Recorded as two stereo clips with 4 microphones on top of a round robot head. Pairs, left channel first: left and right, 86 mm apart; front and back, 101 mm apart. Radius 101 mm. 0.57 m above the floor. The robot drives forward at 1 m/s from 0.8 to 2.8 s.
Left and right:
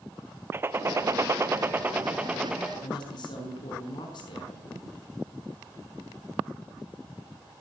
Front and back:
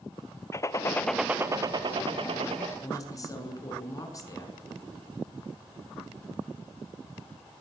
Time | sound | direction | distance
0.5 | a gunshot | 40° right | 0.7 m
2.8 | a woman speaking | 55° left | 6.5 m